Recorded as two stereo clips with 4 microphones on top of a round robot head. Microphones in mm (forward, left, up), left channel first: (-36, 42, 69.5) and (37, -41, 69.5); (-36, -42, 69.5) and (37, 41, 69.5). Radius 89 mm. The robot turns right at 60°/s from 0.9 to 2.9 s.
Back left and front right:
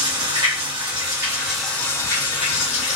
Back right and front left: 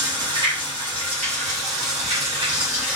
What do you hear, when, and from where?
0.0 s running water: straight ahead, 3 m; by 3.0 s 120° left, 3 m